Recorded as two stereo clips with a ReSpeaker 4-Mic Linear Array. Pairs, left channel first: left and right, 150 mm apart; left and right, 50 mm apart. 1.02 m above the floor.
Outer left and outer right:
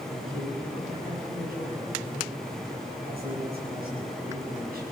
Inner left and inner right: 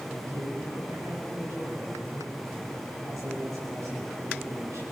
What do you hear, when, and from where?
0.1 s a man speaking: 85° right, 6.5 m